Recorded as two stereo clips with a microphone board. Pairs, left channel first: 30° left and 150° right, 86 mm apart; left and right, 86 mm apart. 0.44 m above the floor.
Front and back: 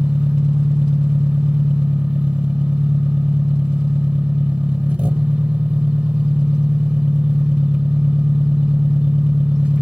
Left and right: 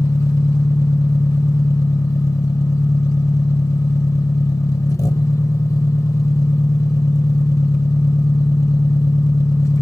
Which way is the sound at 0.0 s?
140° left.